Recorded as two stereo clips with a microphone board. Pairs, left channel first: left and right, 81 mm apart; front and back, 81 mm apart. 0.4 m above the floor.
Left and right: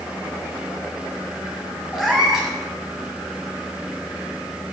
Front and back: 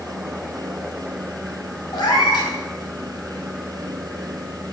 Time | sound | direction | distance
1.9 | a cat meowing | 5° right | 1.7 m